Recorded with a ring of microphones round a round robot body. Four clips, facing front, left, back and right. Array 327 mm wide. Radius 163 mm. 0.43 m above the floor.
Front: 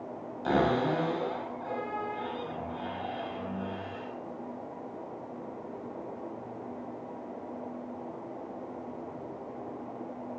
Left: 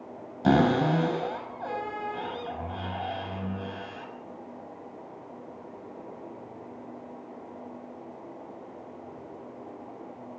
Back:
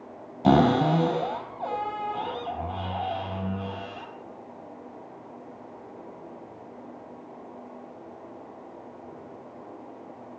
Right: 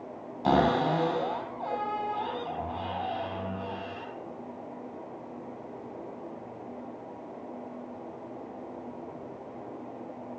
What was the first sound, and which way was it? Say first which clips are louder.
A cupboard door: left 2 dB, back 7 dB; 150° left.